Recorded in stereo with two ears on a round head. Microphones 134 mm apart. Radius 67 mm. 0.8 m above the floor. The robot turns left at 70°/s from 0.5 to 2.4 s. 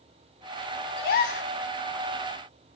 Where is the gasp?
85° left, 0.8 m; by 1.5 s 50° left, 0.8 m.